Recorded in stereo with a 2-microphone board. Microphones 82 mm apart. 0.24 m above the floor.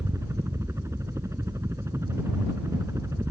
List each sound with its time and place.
0.0 s a helicopter: 40° right (ahead or behind)